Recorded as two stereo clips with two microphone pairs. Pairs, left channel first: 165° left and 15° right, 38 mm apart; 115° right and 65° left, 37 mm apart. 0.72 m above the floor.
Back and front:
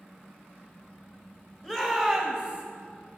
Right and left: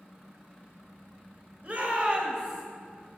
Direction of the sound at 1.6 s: 95° left.